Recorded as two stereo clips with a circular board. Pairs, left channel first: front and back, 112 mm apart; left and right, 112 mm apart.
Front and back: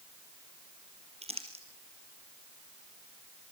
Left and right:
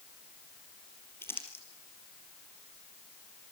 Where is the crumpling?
160° left, 4.5 m.